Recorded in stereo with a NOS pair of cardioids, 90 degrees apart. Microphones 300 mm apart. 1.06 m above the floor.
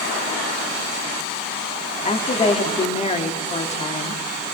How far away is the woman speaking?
About 1.8 m.